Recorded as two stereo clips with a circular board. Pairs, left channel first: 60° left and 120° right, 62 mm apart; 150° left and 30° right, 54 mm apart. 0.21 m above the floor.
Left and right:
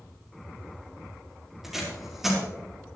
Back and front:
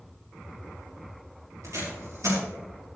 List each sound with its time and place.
1.6 s tape being pulled: 35° right, 5 m